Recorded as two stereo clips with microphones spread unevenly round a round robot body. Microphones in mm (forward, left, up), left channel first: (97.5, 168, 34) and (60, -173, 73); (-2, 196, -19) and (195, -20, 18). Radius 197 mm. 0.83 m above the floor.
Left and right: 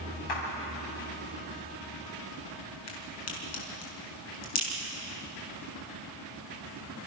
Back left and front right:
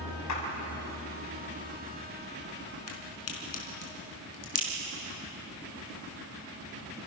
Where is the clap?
110° left, 6.5 m.